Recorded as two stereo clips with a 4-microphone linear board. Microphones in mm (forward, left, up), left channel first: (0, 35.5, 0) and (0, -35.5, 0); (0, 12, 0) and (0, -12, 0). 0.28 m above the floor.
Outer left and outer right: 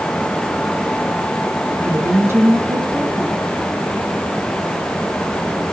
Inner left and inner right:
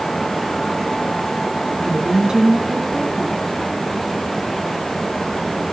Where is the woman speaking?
35° right (ahead or behind), 3 m.